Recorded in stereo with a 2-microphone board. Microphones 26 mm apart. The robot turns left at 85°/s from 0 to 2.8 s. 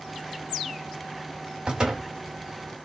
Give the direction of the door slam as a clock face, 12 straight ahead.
4 o'clock.